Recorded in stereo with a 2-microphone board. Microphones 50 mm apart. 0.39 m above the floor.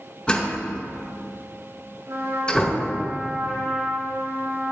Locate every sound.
0.3 s a door slam: 25° left (ahead or behind), 3 m
2.1 s a trumpet: 65° right (ahead or behind), 4 m